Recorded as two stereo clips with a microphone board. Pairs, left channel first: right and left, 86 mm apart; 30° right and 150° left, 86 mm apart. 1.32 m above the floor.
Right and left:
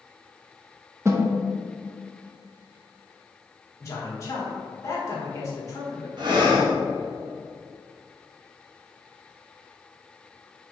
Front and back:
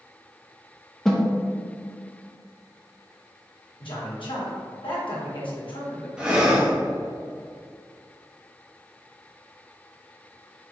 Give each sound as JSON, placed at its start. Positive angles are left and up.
{"t": 1.1, "sound": "a snare drum", "azimuth_deg": 55, "distance_m": 0.5}
{"t": 3.8, "sound": "a man speaking", "azimuth_deg": -35, "distance_m": 1.4}
{"t": 6.2, "sound": "breathing", "azimuth_deg": 70, "distance_m": 1.0}